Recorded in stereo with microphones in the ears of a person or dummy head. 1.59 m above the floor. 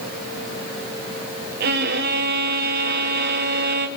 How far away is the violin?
About 1.6 m.